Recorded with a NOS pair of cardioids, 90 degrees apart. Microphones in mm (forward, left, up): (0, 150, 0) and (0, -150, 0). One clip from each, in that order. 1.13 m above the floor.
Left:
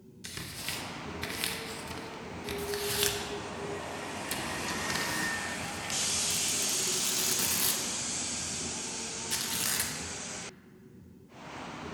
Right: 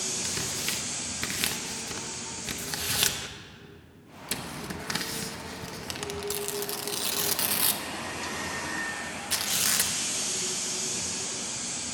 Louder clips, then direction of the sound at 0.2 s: Right 8 dB; 20° right.